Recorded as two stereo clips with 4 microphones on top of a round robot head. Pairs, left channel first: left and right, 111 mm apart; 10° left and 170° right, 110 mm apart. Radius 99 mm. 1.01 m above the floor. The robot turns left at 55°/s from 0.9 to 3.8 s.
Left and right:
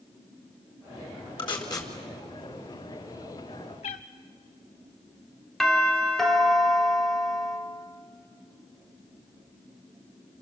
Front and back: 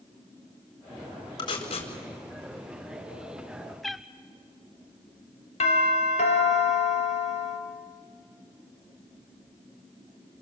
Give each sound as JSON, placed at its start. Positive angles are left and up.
{"t": 1.4, "sound": "tape being pulled", "azimuth_deg": 55, "distance_m": 4.5}
{"t": 3.8, "sound": "a cat meowing", "azimuth_deg": 95, "distance_m": 0.7}
{"t": 5.6, "sound": "a doorbell", "azimuth_deg": 5, "distance_m": 3.5}